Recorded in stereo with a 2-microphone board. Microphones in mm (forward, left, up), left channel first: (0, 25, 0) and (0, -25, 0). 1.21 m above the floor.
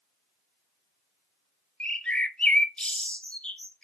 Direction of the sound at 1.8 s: 20° left (ahead or behind).